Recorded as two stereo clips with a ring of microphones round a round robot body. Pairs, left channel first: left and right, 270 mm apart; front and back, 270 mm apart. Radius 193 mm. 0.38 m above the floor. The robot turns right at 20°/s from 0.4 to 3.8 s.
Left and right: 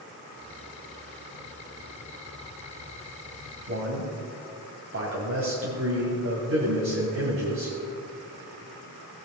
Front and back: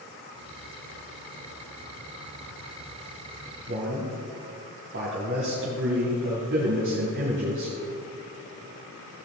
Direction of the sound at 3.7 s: 130° right.